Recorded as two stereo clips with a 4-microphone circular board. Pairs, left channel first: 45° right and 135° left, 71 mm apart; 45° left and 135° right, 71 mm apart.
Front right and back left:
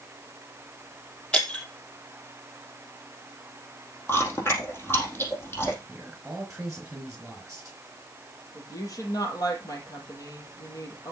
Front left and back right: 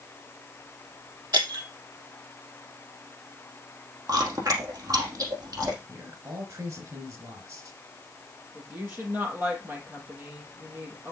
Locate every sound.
1.3 s breaking glass: 120° right, 3 m
4.1 s chewing: 100° right, 4.5 m
5.9 s a man speaking: 145° right, 3 m
8.6 s a woman speaking: 75° right, 4.5 m